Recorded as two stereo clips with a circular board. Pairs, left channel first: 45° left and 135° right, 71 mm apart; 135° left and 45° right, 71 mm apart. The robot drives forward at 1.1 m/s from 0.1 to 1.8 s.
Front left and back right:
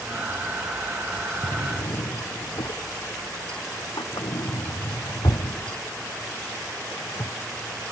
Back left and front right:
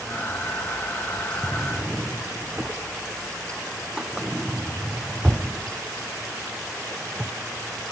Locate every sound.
1.4 s a drawer: 30° left